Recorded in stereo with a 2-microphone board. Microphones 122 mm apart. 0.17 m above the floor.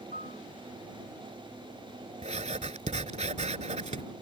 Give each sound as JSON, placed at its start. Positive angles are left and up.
{"t": 0.1, "sound": "a piano", "side_deg": -90}
{"t": 2.2, "sound": "writing", "side_deg": -65}